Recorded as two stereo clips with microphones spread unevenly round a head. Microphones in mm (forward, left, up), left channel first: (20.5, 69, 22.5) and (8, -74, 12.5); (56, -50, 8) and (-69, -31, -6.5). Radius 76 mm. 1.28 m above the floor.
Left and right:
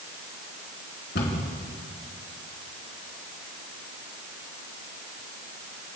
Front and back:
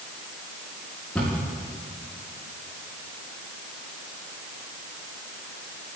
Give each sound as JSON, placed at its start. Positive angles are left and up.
{"t": 1.1, "sound": "a cupboard door", "azimuth_deg": 75, "distance_m": 4.5}